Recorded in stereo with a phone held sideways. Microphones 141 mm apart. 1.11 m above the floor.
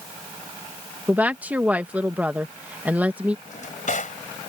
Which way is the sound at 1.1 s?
10° right (ahead or behind).